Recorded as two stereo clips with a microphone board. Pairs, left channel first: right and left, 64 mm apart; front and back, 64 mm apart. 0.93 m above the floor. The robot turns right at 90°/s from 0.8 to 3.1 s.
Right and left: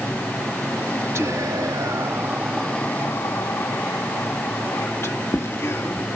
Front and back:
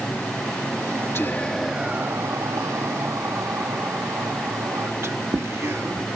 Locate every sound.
1.1 s whispering: 45° left; by 6.1 s 135° right